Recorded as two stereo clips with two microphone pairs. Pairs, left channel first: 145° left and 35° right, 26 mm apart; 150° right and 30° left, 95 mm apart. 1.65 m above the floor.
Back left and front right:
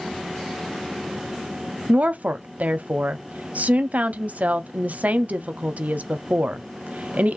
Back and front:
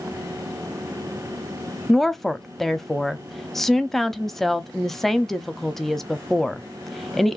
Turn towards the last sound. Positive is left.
turn(degrees=-60)